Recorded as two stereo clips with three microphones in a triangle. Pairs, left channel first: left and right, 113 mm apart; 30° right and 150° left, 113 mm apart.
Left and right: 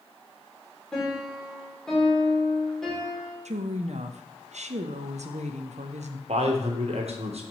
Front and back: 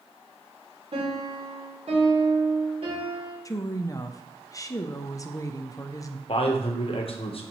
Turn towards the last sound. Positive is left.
turn(degrees=-65)